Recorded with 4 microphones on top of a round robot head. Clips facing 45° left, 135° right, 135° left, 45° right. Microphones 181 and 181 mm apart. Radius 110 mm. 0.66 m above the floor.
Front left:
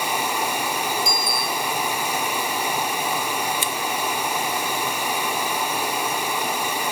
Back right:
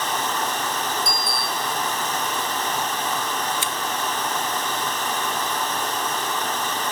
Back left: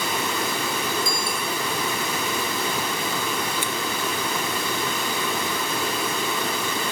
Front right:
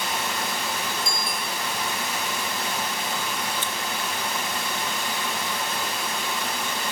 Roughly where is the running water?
Behind left.